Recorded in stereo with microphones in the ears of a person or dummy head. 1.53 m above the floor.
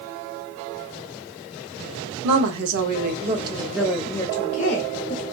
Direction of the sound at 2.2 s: 70° right (ahead or behind).